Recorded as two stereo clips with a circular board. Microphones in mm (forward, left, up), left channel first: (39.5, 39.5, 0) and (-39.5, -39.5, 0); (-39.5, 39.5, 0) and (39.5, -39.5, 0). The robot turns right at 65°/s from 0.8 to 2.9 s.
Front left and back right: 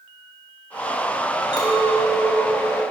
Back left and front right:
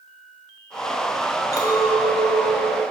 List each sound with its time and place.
1.5 s a clink: 80° left, 1.0 m; by 2.8 s 165° left, 1.0 m